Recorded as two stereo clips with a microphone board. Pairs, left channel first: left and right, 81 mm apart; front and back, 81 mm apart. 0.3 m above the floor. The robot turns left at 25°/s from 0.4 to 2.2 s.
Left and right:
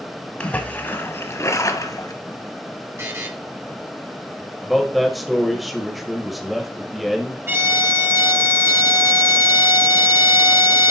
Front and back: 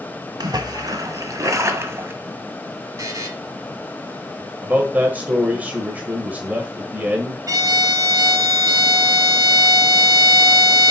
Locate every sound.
0.4 s a splash: 165° left, 1.1 m; by 2.1 s 120° left, 1.1 m
3.0 s a buzzer: 140° right, 2.0 m
4.6 s a man speaking: 175° right, 1.1 m
7.5 s a violin: 145° right, 1.3 m